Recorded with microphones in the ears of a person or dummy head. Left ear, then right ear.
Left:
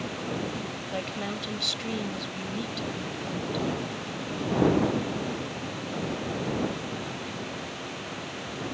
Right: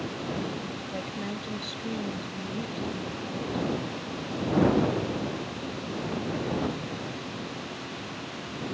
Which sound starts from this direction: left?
A woman speaking, at 0.9 s.